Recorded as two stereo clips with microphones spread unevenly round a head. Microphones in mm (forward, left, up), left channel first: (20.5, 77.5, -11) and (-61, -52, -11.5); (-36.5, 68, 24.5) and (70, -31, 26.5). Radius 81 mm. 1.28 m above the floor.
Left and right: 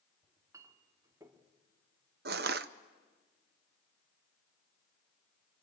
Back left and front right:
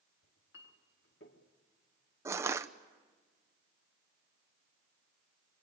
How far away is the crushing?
About 0.7 m.